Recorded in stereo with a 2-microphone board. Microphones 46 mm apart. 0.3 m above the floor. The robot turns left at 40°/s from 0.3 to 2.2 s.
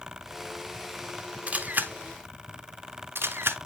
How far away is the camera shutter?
About 0.9 m.